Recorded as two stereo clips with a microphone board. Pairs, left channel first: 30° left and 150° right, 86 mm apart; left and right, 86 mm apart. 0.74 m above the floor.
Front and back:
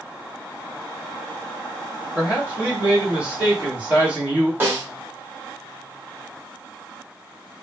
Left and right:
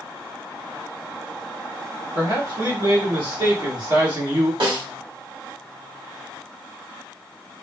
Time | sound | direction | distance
2.1 | a man speaking | 80° right | 1.6 m
4.6 | a snare drum | 85° right | 1.3 m